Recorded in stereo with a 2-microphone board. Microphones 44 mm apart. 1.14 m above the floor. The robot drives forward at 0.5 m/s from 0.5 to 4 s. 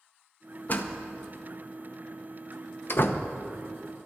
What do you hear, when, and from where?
0.7 s a door slam: 40° left (ahead or behind), 0.9 m; by 3.2 s 45° left (ahead or behind), 0.8 m